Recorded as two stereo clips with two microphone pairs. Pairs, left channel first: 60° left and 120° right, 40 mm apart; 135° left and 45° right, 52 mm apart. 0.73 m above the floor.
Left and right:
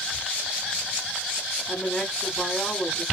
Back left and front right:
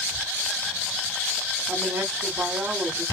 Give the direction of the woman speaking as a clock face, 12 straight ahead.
12 o'clock.